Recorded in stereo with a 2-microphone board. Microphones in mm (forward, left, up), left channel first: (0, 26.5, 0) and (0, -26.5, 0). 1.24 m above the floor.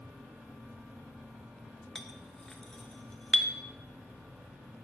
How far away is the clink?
About 0.6 m.